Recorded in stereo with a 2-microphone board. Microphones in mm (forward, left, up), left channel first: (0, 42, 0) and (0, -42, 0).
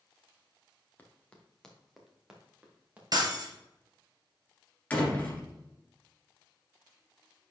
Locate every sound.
1.0 s running footsteps: 20° left (ahead or behind), 2.0 m; by 3.0 s 20° right (ahead or behind), 3 m
3.1 s breaking glass: 50° right (ahead or behind), 1.5 m
4.9 s a door slam: 15° left (ahead or behind), 2.0 m